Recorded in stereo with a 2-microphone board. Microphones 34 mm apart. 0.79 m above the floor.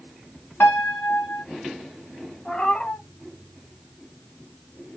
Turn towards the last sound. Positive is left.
turn(degrees=35)  # may be behind; listen again after turning